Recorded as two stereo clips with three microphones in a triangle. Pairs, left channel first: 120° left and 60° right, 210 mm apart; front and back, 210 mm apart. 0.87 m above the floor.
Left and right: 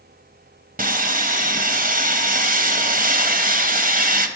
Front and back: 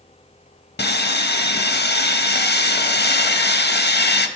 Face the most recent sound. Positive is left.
turn(degrees=-20)